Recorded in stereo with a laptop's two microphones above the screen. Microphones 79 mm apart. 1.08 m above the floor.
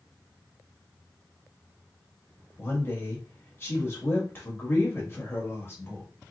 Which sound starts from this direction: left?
A woman speaking, at 2.6 s.